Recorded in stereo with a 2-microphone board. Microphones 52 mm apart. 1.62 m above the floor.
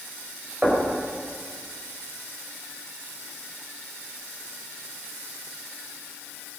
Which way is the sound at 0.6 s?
25° right (ahead or behind).